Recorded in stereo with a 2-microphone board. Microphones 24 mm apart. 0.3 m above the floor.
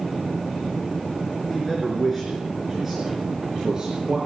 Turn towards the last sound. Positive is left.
turn(degrees=-35)  # may be behind; listen again after turning